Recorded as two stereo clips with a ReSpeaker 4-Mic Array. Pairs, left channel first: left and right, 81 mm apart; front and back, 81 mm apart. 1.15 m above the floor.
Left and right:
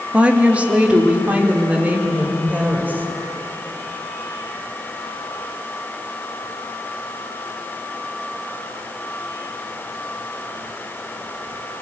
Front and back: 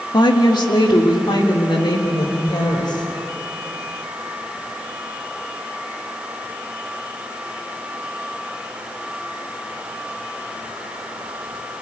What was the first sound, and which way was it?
A woman speaking, 15° right.